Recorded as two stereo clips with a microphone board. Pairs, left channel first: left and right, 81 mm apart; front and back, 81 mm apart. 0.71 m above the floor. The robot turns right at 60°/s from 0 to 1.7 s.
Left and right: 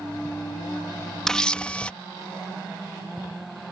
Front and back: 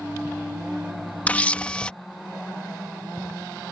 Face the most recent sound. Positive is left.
turn(degrees=45)